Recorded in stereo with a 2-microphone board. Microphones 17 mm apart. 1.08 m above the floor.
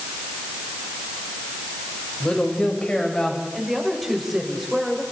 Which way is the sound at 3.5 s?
5° right (ahead or behind).